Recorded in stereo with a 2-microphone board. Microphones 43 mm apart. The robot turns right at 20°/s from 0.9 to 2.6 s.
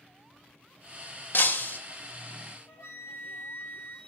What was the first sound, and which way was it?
Breaking glass, 55° left (ahead or behind).